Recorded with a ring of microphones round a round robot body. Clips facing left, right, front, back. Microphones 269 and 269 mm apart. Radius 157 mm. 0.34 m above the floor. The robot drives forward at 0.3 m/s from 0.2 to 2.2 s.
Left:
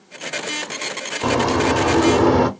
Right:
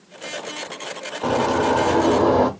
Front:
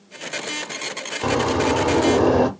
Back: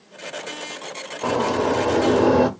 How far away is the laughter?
No laughter in this recording.